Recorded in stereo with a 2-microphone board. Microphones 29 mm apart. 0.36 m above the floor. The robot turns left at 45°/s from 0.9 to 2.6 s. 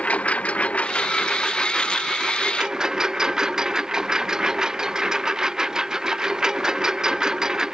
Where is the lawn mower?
55° left; by 7.7 s 20° right.